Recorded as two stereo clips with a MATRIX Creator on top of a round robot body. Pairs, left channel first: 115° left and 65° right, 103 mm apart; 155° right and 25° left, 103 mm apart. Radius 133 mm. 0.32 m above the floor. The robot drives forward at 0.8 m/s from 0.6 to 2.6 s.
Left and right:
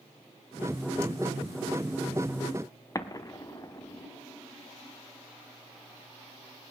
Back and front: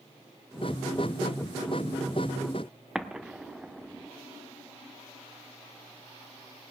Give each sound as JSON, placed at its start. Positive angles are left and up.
{"t": 3.0, "sound": "an explosion", "azimuth_deg": 100, "distance_m": 1.1}